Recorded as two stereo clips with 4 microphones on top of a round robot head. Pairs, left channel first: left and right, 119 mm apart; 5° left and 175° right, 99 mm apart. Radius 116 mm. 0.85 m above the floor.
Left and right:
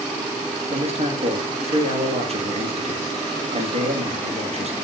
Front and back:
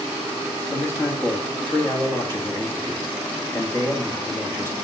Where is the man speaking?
65° right, 2 m.